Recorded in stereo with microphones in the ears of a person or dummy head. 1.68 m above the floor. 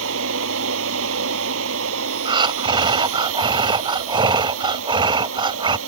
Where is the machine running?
85° right.